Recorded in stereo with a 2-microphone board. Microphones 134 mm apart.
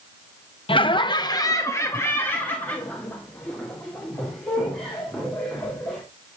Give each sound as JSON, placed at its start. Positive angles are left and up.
{"t": 0.7, "sound": "laughter", "side_deg": 40, "distance_m": 0.5}